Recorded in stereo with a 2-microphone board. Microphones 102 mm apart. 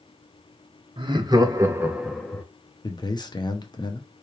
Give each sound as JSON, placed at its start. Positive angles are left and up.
{"t": 1.0, "sound": "laughter", "side_deg": -50, "distance_m": 1.1}
{"t": 2.8, "sound": "a man speaking", "side_deg": 45, "distance_m": 0.9}